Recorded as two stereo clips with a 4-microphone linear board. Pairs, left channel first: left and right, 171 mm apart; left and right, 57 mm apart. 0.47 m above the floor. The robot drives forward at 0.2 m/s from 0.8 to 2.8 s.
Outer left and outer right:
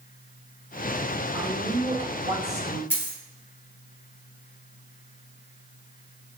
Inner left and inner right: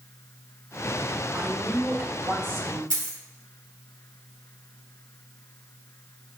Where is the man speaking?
40° right (ahead or behind), 0.9 m.